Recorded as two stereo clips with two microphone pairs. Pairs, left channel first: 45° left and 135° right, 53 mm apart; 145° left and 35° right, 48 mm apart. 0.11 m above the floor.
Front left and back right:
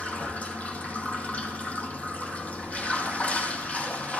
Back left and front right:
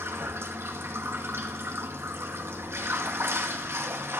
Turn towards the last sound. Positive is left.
turn(degrees=-15)